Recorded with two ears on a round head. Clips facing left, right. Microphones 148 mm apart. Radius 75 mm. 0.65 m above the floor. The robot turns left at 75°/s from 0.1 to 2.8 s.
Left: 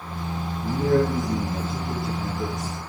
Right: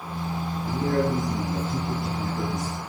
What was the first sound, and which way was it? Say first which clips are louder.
A man speaking: left 4 dB; 85° left.